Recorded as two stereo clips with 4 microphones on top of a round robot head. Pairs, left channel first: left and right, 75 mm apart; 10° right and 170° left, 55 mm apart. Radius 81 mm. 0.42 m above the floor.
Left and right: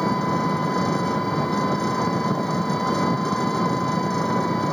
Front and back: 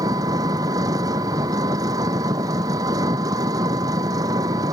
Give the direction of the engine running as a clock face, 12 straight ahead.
6 o'clock.